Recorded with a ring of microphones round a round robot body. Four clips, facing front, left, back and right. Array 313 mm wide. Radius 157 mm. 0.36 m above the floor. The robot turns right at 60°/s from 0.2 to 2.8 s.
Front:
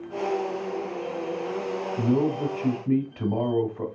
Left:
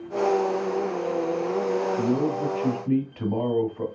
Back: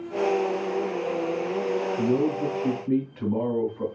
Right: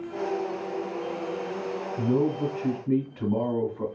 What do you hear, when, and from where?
2.0 s a man speaking: straight ahead, 2.5 m; by 3.9 s 50° left, 2.5 m